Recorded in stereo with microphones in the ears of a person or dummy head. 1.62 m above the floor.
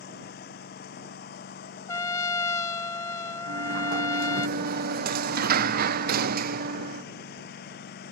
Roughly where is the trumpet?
Centre.